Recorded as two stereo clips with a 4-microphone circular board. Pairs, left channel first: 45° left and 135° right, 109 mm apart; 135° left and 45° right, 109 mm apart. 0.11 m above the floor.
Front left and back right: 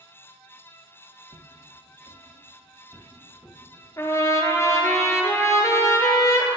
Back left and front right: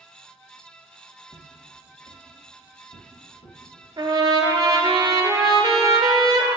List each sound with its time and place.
1.3 s footsteps: 170° right, 1.1 m; by 3.6 s 145° left, 2 m
4.0 s a trumpet: 10° right, 0.8 m